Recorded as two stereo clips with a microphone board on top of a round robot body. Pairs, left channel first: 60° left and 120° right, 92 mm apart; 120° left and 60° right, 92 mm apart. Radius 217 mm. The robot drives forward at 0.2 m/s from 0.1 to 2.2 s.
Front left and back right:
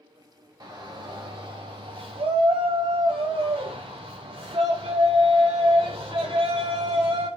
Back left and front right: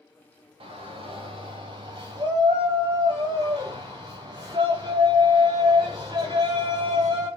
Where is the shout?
75° right, 0.7 m; by 7.3 s 100° right, 0.7 m.